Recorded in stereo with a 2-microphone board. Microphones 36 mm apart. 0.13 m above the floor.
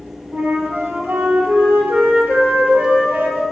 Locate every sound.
0.3 s a flute: 55° right (ahead or behind), 0.6 m